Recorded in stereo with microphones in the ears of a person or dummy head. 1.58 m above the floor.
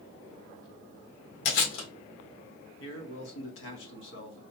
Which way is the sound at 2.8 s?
65° left (ahead or behind).